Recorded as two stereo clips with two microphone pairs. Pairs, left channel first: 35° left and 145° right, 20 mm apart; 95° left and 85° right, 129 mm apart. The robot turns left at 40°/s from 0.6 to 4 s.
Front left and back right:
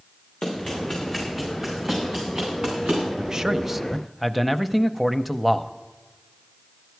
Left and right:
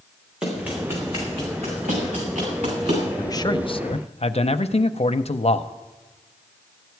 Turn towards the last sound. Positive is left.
turn(degrees=130)